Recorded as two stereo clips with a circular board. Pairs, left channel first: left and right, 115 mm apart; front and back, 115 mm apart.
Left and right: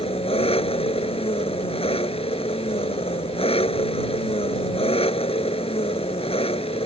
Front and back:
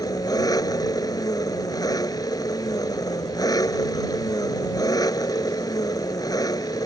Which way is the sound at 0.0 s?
55° left.